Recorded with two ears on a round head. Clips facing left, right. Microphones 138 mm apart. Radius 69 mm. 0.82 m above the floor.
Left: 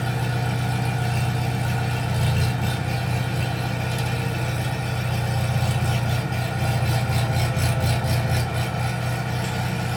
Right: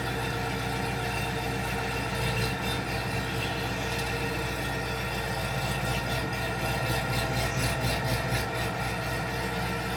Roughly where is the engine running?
Left.